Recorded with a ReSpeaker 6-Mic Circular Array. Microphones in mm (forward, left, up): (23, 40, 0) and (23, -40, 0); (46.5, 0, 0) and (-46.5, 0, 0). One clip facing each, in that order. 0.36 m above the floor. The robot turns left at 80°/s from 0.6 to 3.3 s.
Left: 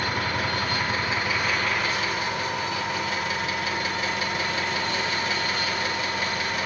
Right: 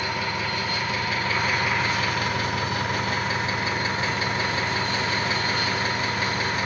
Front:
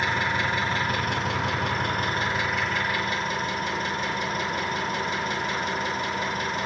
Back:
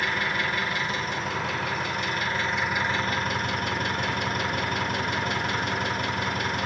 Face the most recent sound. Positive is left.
turn(degrees=-145)